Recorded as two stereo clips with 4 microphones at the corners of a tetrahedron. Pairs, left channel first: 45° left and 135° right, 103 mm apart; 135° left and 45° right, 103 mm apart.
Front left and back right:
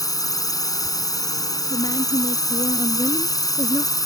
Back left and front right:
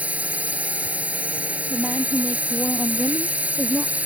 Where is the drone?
25° left.